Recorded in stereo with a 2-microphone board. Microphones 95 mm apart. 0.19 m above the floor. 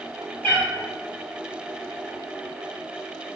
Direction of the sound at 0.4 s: 20° left (ahead or behind).